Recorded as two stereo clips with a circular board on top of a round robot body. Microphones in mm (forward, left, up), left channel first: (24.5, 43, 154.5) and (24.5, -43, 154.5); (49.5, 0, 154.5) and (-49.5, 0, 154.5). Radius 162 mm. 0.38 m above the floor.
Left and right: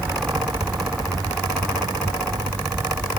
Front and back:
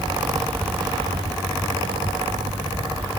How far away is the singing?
I don't hear singing.